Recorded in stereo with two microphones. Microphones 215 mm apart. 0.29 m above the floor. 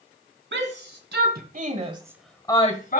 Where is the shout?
65° right (ahead or behind), 2.5 m; by 3.0 s 45° left (ahead or behind), 1.3 m.